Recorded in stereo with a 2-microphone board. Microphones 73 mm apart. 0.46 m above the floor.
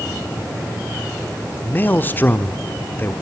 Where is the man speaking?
25° left (ahead or behind), 0.9 m.